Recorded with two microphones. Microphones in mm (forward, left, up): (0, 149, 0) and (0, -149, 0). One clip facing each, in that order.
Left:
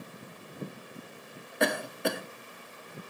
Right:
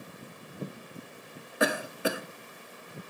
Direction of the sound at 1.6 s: 5° right (ahead or behind).